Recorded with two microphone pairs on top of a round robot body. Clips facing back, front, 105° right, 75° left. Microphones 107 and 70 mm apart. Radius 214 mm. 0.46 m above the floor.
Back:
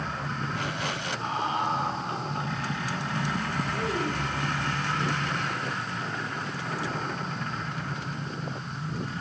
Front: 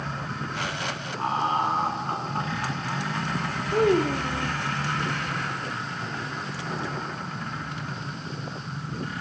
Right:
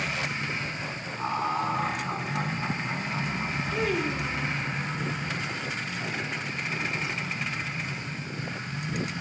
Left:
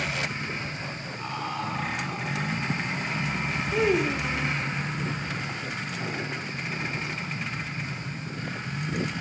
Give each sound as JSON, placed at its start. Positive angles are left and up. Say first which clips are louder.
{"t": 1.2, "sound": "laughter", "louder": "front 5 dB, right 5 dB", "azimuth_deg": -45, "distance_m": 7.0}
{"t": 3.7, "sound": "a child speaking", "louder": "front 13 dB, left 5 dB", "azimuth_deg": 0, "distance_m": 2.0}